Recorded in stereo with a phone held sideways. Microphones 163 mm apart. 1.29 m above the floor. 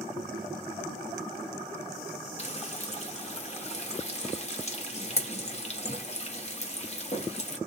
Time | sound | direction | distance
2.4 | frying | 40° left (ahead or behind) | 0.8 m